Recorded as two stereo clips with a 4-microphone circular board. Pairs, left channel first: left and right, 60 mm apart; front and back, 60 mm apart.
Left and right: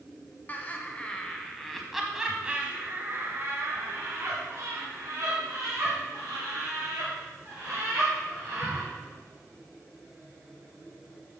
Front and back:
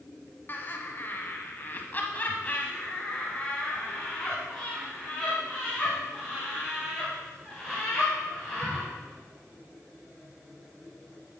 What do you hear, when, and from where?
0.5 s laughter: 40° left, 1.4 m; by 8.9 s 100° right, 3.5 m